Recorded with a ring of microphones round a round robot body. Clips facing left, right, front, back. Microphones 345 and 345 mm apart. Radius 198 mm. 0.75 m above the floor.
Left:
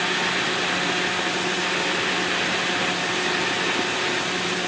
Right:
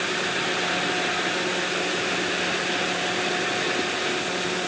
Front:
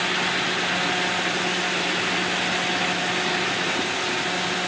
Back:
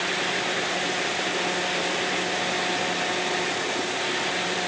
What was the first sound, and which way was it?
Only background noise.